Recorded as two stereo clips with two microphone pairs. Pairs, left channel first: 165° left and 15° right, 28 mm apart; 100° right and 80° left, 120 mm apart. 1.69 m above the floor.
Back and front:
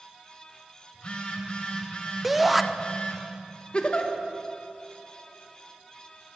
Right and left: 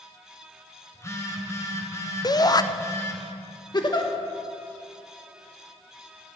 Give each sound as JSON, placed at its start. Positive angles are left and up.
{"t": 0.9, "sound": "a phone buzzing", "azimuth_deg": -155, "distance_m": 2.0}
{"t": 2.2, "sound": "a shout", "azimuth_deg": -90, "distance_m": 0.6}
{"t": 3.7, "sound": "a giggle", "azimuth_deg": -145, "distance_m": 1.3}